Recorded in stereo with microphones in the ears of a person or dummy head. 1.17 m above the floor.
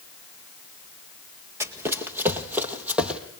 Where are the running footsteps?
15° right (ahead or behind), 1.8 m; by 3.2 s 10° right (ahead or behind), 2.5 m.